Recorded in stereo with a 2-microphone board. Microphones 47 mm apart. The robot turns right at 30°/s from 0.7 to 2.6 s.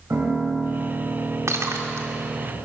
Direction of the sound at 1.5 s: 80° right.